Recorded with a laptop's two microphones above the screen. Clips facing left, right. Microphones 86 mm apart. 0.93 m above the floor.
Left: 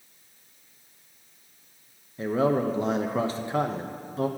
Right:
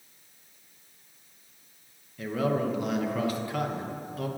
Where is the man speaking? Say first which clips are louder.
Left 4 dB; 30° left (ahead or behind), 0.6 m.